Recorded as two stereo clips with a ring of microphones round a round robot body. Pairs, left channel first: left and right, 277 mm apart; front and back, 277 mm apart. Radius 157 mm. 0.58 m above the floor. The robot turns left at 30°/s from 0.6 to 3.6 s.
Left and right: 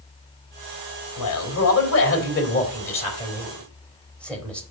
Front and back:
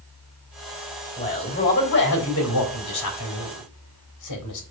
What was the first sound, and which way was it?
A man speaking, 80° left.